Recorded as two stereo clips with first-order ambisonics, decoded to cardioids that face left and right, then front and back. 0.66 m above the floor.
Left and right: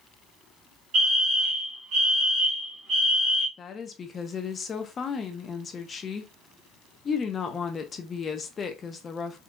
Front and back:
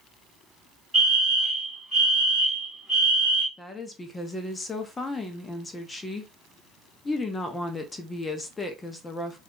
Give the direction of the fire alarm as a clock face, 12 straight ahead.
3 o'clock.